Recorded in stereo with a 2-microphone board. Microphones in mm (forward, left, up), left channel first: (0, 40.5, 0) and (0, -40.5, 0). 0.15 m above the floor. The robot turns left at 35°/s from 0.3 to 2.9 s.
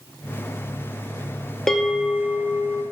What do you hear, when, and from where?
1.7 s a bell: 5° left, 0.9 m; by 2.8 s 35° right, 0.9 m